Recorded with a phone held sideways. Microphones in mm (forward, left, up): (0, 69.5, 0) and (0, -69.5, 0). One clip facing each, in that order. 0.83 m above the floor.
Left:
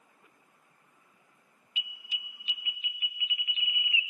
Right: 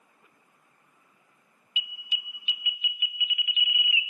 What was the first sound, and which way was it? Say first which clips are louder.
An alarm: right 4 dB; 35° left (ahead or behind).